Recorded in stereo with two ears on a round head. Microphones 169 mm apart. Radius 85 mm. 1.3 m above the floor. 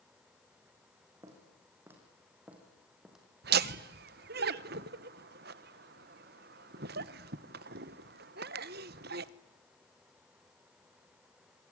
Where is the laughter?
55° right (ahead or behind), 1.0 m.